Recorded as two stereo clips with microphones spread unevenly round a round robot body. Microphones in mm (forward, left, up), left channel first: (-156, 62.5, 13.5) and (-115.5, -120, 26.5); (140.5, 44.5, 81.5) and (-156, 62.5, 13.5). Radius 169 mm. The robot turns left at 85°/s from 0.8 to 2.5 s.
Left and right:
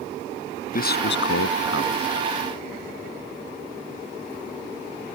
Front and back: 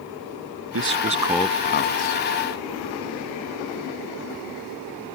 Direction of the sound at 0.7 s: 135° left.